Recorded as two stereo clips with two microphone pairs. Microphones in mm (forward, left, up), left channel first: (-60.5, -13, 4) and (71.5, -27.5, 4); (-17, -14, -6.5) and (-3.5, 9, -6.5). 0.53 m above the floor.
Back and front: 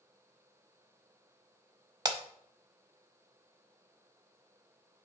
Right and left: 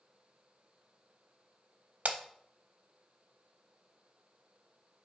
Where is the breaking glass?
50° left, 0.7 m.